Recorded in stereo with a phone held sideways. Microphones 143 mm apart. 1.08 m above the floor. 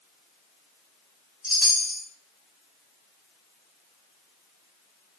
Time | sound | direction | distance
1.4 | a chime | 35° right (ahead or behind) | 0.6 m